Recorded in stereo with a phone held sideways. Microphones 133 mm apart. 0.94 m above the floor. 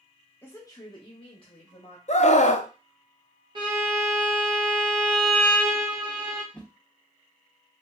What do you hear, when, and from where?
0.4 s a woman speaking: 15° left (ahead or behind), 0.7 m; by 2.0 s 50° left (ahead or behind), 1.1 m
2.1 s a scream: 55° left (ahead or behind), 0.5 m
3.5 s a violin: 35° right (ahead or behind), 1.2 m
6.5 s a whoosh: 5° left (ahead or behind), 0.6 m